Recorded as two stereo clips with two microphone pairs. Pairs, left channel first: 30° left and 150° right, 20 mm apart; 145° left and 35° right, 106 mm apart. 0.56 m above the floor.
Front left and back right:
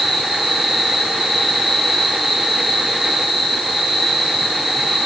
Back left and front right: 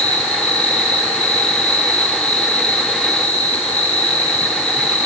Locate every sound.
0.0 s an insect: 135° left, 5.5 m